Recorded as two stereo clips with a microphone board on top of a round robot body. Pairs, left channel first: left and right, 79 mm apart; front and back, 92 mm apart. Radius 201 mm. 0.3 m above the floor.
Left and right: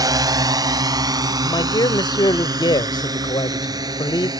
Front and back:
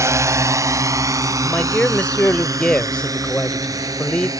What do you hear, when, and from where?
0.0 s a drone: 125° right; by 4.4 s 130° right
1.4 s a man speaking: 80° left